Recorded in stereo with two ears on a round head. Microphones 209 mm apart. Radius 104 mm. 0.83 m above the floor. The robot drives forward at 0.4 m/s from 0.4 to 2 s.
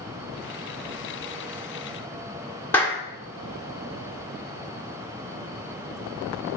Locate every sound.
2.7 s a clap: 10° left (ahead or behind), 1.8 m